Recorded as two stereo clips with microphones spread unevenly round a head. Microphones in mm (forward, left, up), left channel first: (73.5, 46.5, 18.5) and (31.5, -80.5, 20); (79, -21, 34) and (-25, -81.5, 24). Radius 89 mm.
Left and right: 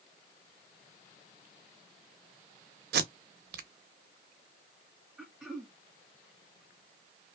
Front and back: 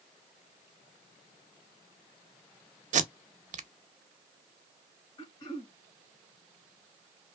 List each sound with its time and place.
2.9 s tape being pulled: 125° right, 0.6 m
5.2 s throat clearing: 20° right, 1.6 m